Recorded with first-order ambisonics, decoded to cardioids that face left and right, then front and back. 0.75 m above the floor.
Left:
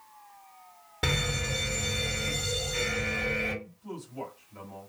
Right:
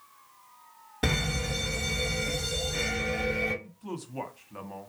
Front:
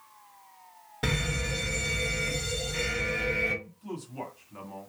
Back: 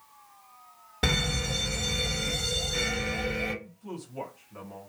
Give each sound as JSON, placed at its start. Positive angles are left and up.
{"t": 1.0, "sound": "a fire alarm", "azimuth_deg": 160, "distance_m": 1.5}
{"t": 3.6, "sound": "a man speaking", "azimuth_deg": -85, "distance_m": 1.1}